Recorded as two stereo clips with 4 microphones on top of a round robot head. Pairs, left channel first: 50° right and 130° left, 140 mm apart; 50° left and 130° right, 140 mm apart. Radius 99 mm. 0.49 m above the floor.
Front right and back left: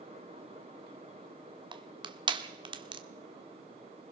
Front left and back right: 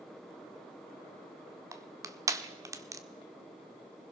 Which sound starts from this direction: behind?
Crushing, at 1.7 s.